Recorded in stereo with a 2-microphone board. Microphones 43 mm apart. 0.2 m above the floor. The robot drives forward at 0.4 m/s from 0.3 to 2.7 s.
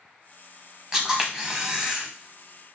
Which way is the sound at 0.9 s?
15° right (ahead or behind).